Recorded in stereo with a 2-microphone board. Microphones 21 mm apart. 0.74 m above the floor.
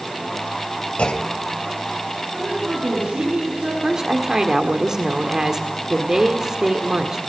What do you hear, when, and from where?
1.0 s a clunk: 65° left (ahead or behind), 2.5 m
2.3 s a woman speaking: 80° right, 9.5 m
3.8 s a woman speaking: 30° right (ahead or behind), 1.6 m